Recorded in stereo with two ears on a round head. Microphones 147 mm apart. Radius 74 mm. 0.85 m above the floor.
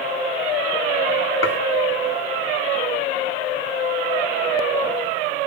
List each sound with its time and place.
1.4 s dishes clattering: 80° left, 1.4 m